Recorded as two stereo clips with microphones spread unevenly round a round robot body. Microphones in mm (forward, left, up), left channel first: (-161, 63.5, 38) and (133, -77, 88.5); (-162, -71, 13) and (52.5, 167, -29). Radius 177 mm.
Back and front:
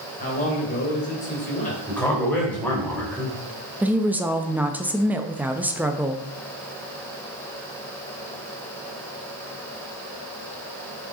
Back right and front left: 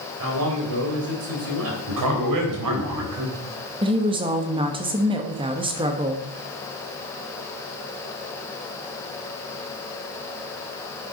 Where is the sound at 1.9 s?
70° left, 3.5 m.